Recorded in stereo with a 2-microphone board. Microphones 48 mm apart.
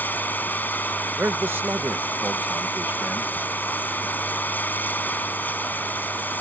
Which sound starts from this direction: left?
Running water, at 0.0 s.